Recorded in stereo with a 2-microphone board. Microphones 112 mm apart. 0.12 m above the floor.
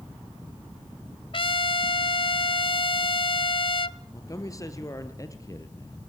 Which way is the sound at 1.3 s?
50° left (ahead or behind).